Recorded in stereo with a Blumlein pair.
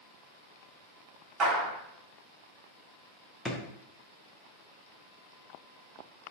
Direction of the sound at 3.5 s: 15° left.